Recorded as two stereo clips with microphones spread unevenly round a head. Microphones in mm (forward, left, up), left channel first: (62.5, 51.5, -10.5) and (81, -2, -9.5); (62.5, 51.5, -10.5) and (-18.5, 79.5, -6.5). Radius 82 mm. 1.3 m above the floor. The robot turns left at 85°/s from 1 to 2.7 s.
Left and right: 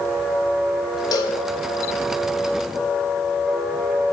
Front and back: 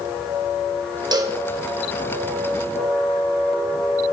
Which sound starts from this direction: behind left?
A cowbell, at 1.1 s.